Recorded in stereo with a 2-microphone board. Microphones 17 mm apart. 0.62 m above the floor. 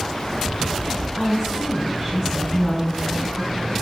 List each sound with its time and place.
1.2 s a woman speaking: 25° right (ahead or behind), 4.5 m